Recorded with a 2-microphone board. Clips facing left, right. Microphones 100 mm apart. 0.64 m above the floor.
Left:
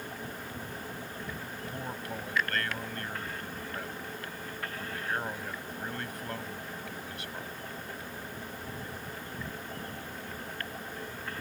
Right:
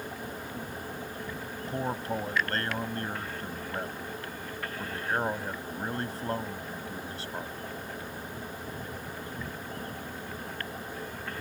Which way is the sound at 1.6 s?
35° right (ahead or behind).